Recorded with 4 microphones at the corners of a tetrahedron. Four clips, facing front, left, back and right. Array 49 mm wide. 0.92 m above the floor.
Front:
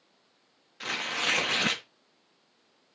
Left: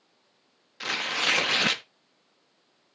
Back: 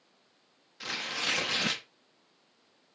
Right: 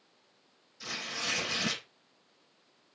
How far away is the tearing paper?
About 1.1 m.